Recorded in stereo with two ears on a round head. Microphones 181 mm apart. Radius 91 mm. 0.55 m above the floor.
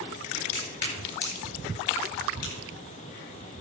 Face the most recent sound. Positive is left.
turn(degrees=75)  # may be behind; listen again after turning